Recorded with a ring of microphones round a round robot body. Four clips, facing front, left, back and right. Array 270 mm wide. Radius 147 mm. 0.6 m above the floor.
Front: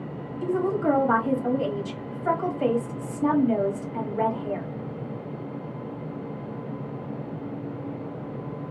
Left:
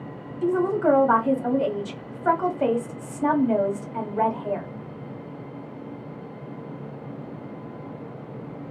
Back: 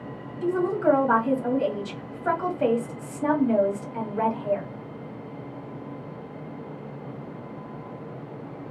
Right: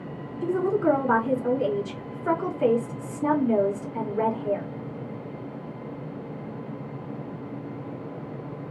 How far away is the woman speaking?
About 1.4 m.